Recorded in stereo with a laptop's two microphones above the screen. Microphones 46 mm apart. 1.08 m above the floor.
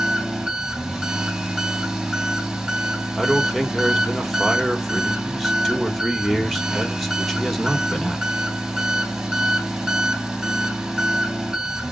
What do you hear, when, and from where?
0.0 s an engine running: 10° right (ahead or behind), 2.5 m
3.2 s a man speaking: centre (ahead or behind), 2.5 m